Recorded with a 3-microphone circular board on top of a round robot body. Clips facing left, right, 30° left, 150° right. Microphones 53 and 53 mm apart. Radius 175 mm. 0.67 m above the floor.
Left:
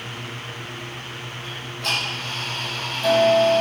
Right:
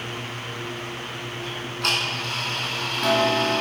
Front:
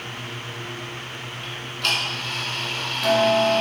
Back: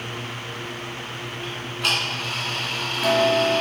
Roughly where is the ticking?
Right.